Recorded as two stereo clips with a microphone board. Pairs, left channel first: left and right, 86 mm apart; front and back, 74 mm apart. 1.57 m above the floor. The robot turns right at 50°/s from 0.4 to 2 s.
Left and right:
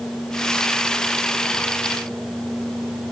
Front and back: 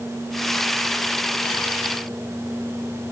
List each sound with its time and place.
Only background noise.